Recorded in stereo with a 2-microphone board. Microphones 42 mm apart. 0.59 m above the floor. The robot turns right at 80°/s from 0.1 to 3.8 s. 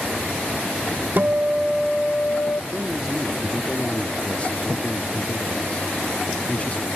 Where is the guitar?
50° right, 0.5 m; by 2.6 s 65° left, 0.5 m.